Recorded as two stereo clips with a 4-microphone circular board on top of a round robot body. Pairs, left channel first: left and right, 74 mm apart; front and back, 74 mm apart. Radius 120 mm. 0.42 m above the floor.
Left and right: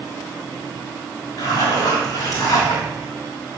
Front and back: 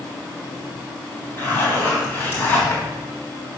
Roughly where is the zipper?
Ahead left.